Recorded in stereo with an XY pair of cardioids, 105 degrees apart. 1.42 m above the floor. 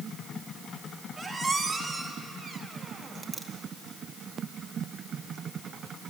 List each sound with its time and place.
1.2 s a squeak: 15° right, 1.9 m